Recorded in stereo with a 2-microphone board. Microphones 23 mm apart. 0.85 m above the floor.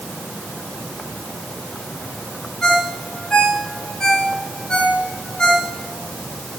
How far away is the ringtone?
About 4 m.